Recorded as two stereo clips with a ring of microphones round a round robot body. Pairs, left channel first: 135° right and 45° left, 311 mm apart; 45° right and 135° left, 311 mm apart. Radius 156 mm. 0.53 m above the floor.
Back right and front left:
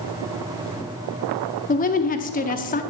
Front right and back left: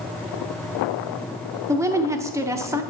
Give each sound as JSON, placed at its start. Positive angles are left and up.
{"t": 1.7, "sound": "a woman speaking", "azimuth_deg": -155, "distance_m": 0.7}